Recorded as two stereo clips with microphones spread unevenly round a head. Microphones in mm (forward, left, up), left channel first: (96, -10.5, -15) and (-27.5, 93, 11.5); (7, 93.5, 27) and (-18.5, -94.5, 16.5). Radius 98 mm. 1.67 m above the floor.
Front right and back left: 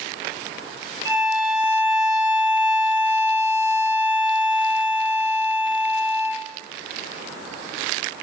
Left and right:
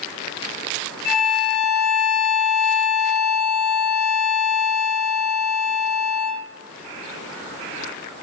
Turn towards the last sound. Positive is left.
turn(degrees=90)